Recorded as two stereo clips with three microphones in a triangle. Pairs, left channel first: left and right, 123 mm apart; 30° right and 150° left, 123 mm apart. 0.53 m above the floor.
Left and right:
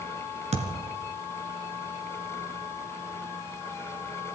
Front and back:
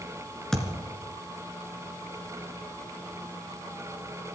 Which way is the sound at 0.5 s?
115° right.